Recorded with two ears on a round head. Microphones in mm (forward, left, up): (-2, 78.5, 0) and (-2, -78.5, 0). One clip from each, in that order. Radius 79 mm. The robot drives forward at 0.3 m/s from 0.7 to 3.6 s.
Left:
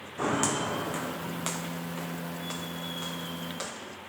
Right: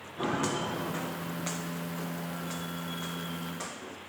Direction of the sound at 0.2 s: 65° left (ahead or behind).